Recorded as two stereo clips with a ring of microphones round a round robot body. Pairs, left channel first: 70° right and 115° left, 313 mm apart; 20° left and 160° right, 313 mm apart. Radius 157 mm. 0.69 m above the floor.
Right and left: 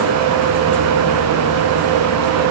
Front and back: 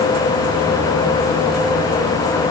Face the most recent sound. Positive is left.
No sound to turn to.